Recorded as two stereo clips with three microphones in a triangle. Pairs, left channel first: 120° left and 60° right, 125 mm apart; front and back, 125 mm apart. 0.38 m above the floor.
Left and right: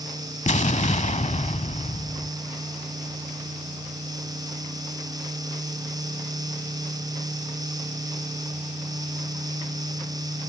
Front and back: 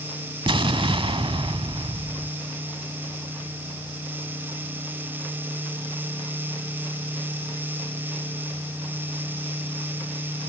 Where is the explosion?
135° left, 0.9 m.